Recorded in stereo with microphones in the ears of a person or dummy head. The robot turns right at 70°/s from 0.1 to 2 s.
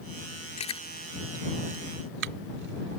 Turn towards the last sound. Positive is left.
turn(degrees=-60)  # may be behind; listen again after turning